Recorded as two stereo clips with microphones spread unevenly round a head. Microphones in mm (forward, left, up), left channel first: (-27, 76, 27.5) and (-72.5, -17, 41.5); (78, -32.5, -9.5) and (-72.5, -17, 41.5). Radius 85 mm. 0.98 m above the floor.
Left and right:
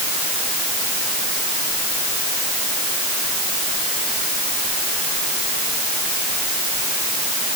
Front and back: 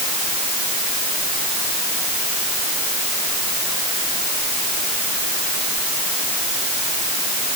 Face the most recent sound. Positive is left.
No sound to turn to.